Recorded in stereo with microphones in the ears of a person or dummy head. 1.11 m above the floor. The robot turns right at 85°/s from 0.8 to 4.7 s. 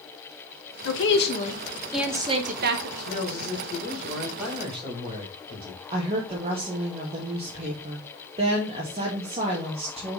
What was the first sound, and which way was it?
A woman speaking, 90° left.